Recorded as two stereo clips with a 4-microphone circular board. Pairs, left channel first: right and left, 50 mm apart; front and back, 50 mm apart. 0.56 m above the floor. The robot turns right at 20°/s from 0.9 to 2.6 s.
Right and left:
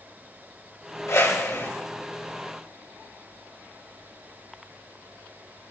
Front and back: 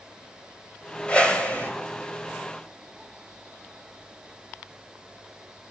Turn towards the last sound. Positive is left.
turn(degrees=-35)